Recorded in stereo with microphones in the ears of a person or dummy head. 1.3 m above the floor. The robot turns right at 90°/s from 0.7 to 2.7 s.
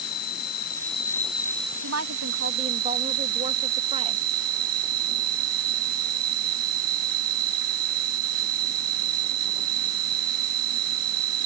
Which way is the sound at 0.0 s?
130° left.